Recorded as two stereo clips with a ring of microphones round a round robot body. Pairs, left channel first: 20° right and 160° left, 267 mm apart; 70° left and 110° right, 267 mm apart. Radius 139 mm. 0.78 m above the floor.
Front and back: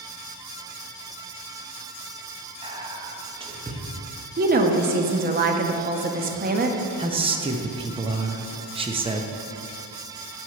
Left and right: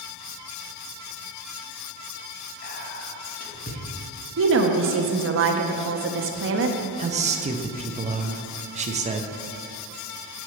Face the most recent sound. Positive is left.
turn(degrees=-150)